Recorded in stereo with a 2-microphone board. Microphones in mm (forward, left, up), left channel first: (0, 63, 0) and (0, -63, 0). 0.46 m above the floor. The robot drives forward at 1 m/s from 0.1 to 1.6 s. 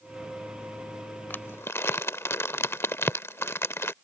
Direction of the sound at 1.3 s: 15° left (ahead or behind).